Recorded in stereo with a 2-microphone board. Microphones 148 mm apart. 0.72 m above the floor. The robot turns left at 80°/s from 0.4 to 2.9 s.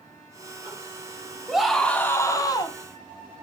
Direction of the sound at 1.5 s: 5° right (ahead or behind).